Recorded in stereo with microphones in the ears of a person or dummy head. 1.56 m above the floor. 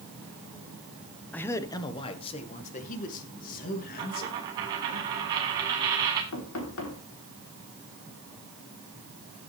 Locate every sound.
1.3 s a man speaking: 10° left (ahead or behind), 1.1 m; by 5.0 s 55° left (ahead or behind), 4 m
4.0 s a dropped coin: 20° right (ahead or behind), 1.5 m
6.3 s knocking: 75° left (ahead or behind), 3.5 m